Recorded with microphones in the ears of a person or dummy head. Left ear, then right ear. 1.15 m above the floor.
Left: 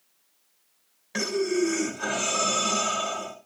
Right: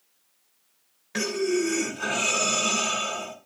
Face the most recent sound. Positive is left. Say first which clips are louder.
# even
turn(degrees=5)  # may be behind; listen again after turning